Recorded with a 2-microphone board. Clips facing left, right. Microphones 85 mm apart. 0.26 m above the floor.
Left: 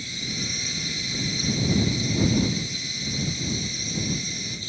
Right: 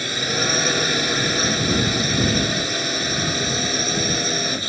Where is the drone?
70° right (ahead or behind).